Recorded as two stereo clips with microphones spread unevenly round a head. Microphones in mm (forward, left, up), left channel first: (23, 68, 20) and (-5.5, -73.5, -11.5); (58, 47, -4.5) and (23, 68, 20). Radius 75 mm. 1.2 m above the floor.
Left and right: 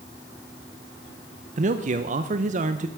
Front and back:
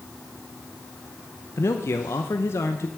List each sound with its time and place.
1.6 s a man speaking: 60° right, 0.6 m